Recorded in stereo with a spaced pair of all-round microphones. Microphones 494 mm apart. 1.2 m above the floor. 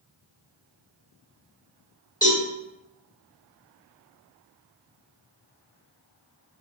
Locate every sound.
2.2 s a cowbell: 10° left (ahead or behind), 1.8 m